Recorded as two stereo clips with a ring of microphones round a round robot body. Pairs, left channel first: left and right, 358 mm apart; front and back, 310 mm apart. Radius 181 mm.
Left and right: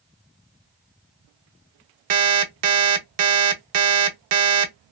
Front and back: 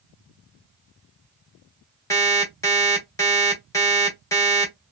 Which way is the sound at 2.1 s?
75° right.